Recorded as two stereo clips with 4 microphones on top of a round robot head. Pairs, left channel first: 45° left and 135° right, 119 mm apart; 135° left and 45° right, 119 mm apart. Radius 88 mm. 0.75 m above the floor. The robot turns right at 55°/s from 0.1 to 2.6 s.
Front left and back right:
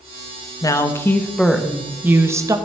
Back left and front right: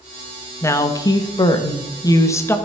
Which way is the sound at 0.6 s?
85° left.